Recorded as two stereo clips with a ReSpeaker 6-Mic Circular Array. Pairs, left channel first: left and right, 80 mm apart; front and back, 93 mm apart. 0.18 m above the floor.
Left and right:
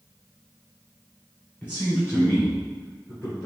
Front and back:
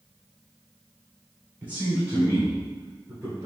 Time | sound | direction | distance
1.6 | a man speaking | 130° left | 1.5 m